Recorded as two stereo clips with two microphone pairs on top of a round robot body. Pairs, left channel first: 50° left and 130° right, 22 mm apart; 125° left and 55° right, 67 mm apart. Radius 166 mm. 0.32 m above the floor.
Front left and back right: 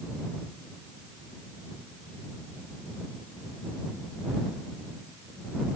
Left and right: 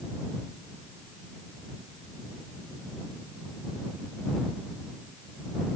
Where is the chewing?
No chewing in this recording.